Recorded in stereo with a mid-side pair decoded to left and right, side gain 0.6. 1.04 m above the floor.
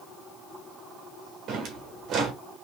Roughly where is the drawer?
Ahead right.